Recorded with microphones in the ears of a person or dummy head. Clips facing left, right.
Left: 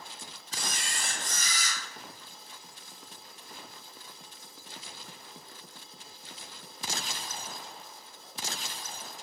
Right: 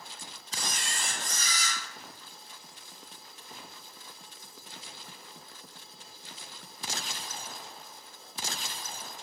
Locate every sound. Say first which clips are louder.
0.5 s a camera shutter: right 1 dB; 50° left (ahead or behind), 1.3 m